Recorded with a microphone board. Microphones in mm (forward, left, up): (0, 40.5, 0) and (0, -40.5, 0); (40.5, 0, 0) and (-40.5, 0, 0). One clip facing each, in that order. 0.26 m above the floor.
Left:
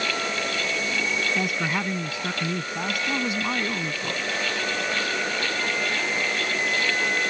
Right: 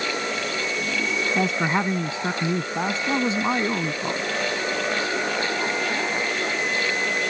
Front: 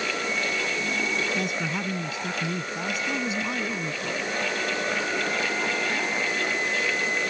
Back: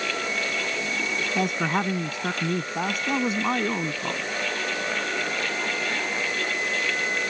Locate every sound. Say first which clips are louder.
1.4 s a man speaking: right 4 dB, back 4 dB; 150° right